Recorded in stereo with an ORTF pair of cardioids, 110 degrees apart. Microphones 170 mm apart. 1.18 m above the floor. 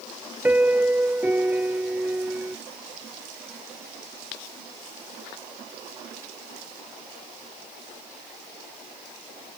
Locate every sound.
0.4 s a piano: 10° right